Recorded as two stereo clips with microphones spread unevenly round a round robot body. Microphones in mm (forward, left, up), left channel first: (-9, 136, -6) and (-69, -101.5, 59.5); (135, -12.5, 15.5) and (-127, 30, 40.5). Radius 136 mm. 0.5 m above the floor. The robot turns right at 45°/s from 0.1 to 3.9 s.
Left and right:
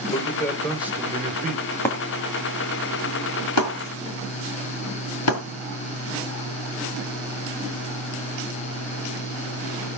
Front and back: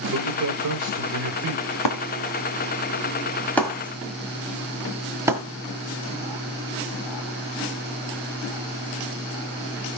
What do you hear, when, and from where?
0.1 s a man speaking: 135° left, 3 m; by 1.6 s 155° right, 3 m
1.9 s breaking glass: 5° right, 2 m; by 5.4 s 90° left, 2 m